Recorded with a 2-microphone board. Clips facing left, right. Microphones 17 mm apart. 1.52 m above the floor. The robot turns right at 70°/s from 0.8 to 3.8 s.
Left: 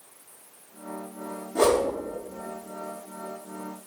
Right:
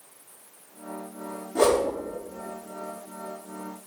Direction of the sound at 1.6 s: 40° right (ahead or behind).